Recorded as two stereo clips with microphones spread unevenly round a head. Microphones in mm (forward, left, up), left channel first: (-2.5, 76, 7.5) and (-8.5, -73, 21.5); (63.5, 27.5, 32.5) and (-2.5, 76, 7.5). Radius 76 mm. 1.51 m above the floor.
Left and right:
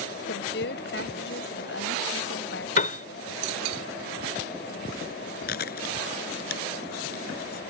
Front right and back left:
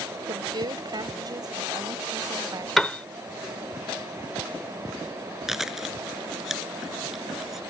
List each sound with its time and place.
0.3 s a woman speaking: 105° left; by 3.1 s 95° left
2.8 s a piano: 45° left
5.5 s chewing: 55° left